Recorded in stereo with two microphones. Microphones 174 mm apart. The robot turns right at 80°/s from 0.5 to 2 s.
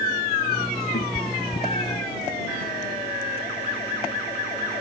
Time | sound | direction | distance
0.9 | a cat meowing | 80° left | ?